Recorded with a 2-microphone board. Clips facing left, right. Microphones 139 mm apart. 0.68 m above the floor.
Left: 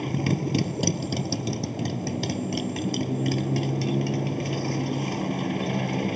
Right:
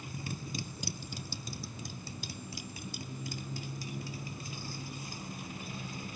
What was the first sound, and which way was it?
A motorcycle, 75° left (ahead or behind).